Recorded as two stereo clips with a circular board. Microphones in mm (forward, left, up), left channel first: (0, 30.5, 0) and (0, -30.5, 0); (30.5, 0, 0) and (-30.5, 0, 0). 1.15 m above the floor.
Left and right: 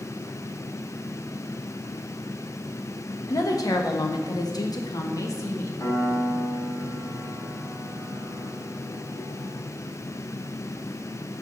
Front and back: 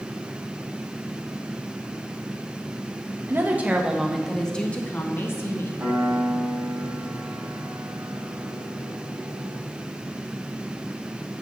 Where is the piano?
130° left, 4.5 m.